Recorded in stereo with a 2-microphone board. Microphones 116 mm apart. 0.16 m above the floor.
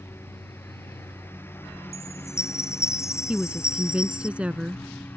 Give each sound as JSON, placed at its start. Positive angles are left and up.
{"t": 0.0, "sound": "a lawn mower", "side_deg": 20}
{"t": 1.9, "sound": "a chime", "side_deg": 25}
{"t": 3.3, "sound": "a woman speaking", "side_deg": -10}